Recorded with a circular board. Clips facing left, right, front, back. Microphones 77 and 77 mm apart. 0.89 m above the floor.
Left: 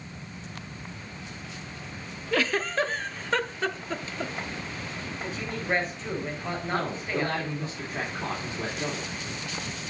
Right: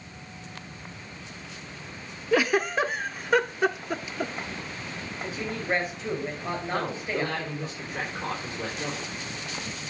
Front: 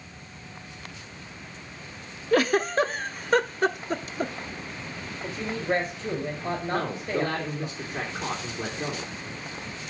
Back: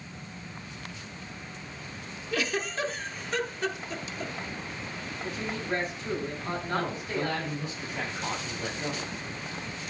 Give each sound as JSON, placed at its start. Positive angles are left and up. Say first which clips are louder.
{"t": 2.3, "sound": "a giggle", "louder": "right 3 dB, front 9 dB", "azimuth_deg": -15, "distance_m": 0.5}
{"t": 5.2, "sound": "a woman speaking", "louder": "right 1 dB, front 5 dB", "azimuth_deg": -5, "distance_m": 4.5}
{"t": 6.7, "sound": "a man speaking", "louder": "left 1 dB, front 2 dB", "azimuth_deg": 25, "distance_m": 3.0}